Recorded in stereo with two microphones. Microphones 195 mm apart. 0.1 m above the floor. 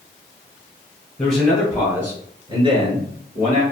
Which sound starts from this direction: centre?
A man speaking, at 1.2 s.